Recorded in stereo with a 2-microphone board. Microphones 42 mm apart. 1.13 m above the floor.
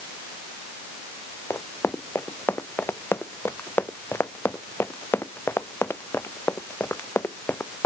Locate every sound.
1.5 s running footsteps: 85° left